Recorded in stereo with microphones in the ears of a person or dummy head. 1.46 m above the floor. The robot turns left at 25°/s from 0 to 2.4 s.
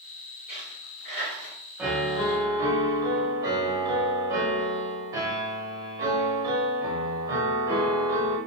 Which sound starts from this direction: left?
A dropped coin, at 0.5 s.